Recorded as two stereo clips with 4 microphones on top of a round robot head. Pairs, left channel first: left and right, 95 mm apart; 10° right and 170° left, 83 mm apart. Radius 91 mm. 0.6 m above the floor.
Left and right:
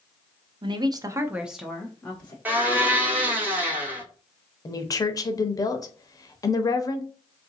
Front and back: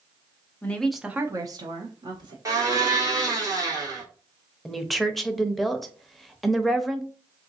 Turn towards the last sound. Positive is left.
turn(degrees=75)